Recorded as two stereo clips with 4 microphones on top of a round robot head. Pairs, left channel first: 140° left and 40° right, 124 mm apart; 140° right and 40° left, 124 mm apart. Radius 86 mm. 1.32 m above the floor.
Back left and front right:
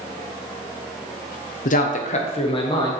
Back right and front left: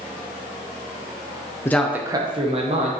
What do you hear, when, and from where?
1.6 s a man speaking: 155° left, 0.6 m; by 2.9 s 80° left, 1.7 m